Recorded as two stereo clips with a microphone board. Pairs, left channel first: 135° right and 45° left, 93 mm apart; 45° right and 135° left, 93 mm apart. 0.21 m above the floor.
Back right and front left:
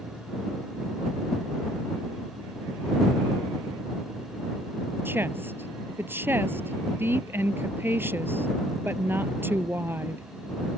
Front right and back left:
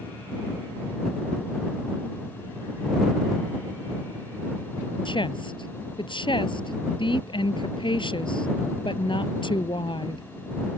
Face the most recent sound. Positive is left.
turn(degrees=-20)